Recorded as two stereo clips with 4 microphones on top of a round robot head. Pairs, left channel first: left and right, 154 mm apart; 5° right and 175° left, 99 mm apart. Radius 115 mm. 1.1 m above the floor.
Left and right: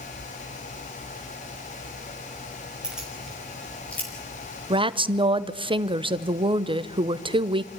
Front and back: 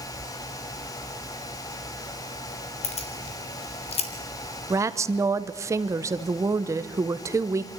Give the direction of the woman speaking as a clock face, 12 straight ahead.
4 o'clock.